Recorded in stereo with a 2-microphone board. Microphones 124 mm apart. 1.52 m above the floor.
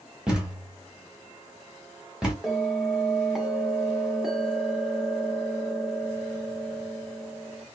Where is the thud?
5° right (ahead or behind), 1.5 m.